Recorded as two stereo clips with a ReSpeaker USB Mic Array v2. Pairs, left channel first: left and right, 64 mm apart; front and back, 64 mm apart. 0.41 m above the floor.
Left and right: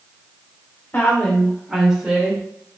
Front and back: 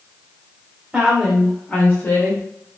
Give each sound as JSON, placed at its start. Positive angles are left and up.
{"t": 0.9, "sound": "a woman speaking", "azimuth_deg": 110, "distance_m": 0.9}